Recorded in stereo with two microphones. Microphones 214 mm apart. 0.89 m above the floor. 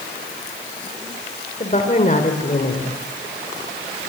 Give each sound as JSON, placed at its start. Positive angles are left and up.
{"t": 1.6, "sound": "a woman speaking", "side_deg": 35, "distance_m": 3.0}